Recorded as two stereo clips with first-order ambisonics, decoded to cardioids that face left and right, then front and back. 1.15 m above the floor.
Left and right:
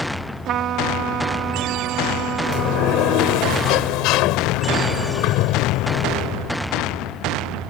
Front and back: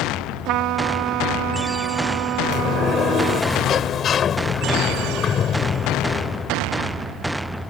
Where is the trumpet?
140° right.